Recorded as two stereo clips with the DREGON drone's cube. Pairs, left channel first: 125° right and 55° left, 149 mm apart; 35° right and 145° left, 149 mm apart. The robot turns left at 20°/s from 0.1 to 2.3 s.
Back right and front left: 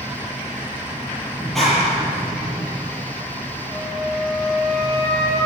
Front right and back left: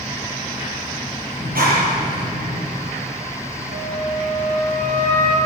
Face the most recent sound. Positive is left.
turn(degrees=125)